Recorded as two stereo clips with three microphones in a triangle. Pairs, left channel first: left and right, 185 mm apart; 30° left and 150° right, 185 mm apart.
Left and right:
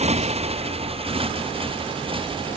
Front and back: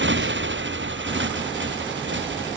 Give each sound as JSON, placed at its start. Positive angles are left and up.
{"t": 0.0, "sound": "a motorcycle", "azimuth_deg": -145}